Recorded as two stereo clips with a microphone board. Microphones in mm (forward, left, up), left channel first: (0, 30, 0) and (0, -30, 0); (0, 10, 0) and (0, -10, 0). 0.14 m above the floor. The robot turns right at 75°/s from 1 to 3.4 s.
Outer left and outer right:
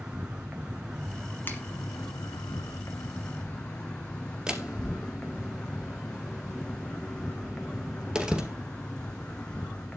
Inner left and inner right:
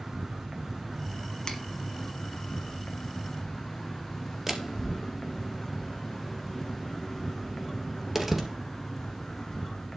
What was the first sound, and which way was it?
An insect, 15° right.